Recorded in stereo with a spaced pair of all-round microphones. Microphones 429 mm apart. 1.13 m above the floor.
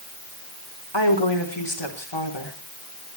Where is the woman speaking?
70° left (ahead or behind), 3.5 m.